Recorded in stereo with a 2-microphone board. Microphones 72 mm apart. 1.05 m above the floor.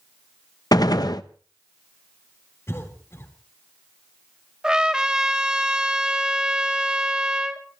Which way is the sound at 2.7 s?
40° left (ahead or behind).